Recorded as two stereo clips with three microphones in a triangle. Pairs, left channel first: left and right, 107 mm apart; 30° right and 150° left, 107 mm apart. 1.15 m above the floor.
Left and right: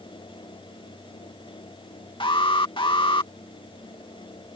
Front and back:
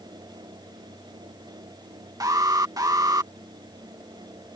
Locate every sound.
2.2 s an alarm: 105° left